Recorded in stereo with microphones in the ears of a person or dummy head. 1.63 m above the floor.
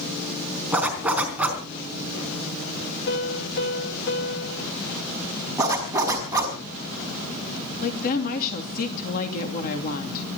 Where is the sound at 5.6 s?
25° right (ahead or behind), 5 m.